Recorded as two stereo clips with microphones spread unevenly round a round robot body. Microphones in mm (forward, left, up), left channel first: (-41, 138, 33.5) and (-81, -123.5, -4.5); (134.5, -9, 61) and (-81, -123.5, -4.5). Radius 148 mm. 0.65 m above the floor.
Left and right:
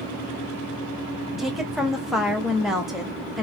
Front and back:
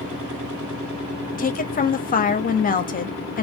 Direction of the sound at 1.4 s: 25° right.